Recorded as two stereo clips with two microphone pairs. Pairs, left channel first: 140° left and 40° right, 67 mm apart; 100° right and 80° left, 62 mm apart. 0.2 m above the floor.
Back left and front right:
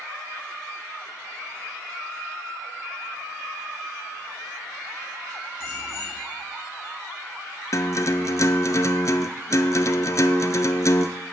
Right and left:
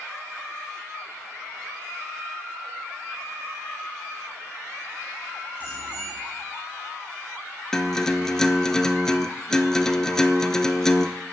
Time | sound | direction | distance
5.6 | a bicycle bell | 165° right | 8.5 m
7.7 | a guitar | straight behind | 0.7 m